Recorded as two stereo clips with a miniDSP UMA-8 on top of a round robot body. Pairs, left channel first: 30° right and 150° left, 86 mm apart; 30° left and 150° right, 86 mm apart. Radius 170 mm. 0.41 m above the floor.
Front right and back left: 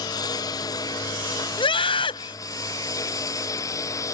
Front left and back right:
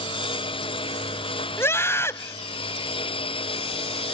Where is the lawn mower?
15° left; by 4.1 s 20° left.